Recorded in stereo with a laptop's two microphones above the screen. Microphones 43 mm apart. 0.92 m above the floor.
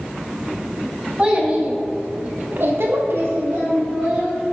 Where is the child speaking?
25° right (ahead or behind), 1.2 m; by 4.5 s 30° right (ahead or behind), 1.1 m.